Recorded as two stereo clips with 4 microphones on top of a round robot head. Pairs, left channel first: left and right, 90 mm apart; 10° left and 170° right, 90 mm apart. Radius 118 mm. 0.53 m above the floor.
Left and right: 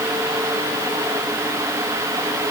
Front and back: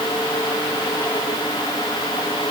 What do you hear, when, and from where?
Only background noise.